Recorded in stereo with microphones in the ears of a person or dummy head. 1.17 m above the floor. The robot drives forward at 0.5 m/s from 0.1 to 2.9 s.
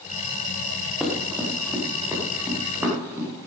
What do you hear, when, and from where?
1.0 s running footsteps: centre (ahead or behind), 3.5 m; by 3.5 s 10° right (ahead or behind), 6 m